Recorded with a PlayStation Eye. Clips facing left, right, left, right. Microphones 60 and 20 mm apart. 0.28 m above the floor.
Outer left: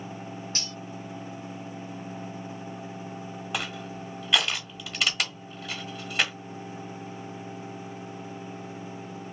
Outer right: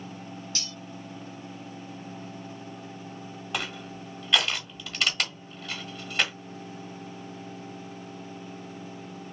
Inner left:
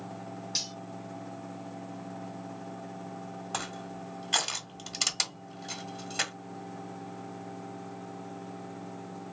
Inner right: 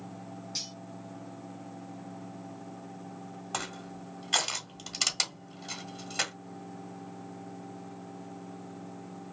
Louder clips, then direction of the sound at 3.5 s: Even, even; 5° left (ahead or behind).